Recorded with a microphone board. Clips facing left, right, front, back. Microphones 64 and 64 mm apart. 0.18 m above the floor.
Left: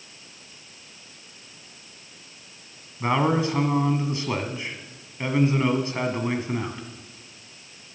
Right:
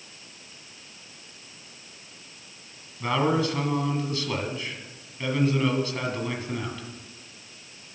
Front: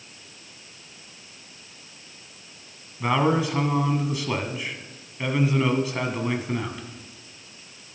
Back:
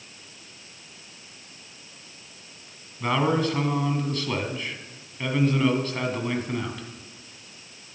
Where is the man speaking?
65° left, 1.5 m.